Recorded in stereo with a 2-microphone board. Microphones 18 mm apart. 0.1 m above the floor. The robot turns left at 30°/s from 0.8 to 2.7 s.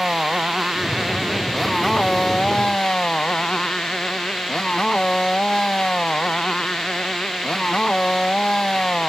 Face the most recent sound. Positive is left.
turn(degrees=140)